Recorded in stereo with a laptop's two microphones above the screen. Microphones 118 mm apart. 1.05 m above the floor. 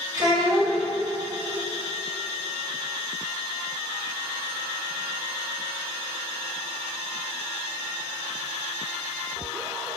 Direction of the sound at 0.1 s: 30° right (ahead or behind).